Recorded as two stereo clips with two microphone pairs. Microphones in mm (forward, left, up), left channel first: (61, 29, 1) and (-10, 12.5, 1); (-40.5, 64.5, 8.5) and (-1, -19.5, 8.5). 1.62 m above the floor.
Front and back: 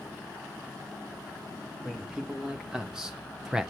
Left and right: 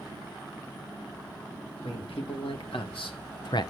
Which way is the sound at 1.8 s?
110° left.